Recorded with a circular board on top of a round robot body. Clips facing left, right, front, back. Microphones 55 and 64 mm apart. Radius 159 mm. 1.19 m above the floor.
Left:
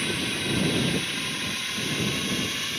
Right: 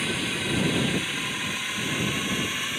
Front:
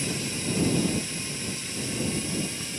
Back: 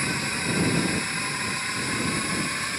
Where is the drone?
175° right; by 2.8 s 165° right.